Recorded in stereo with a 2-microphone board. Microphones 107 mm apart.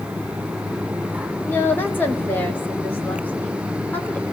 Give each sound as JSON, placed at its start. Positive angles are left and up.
{"t": 1.4, "sound": "a woman speaking", "side_deg": 20, "distance_m": 1.5}